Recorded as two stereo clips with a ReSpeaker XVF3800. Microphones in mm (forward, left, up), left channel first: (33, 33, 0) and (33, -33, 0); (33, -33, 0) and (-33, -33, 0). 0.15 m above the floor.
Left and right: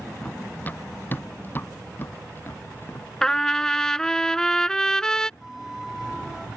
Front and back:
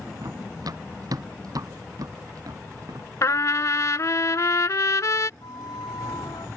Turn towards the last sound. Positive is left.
turn(degrees=0)